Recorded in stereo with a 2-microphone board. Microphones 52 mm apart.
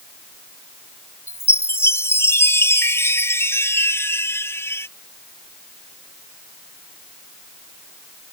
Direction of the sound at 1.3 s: 55° left (ahead or behind).